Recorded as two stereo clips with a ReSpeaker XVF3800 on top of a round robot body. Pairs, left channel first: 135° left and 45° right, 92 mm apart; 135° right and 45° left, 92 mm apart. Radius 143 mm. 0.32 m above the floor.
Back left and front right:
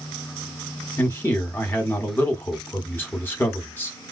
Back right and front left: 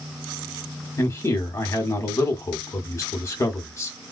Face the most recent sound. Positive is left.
turn(degrees=-170)